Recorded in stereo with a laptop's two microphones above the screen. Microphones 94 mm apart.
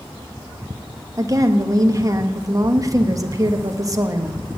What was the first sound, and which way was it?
A woman speaking, 35° right (ahead or behind).